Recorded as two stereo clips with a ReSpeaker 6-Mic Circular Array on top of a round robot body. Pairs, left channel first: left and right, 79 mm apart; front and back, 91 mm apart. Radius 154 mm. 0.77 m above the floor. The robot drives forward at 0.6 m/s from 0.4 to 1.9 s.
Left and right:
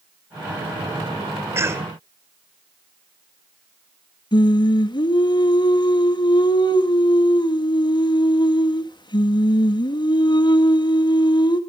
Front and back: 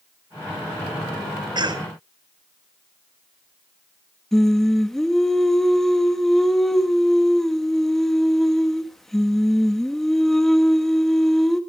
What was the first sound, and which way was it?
A cough, 145° right.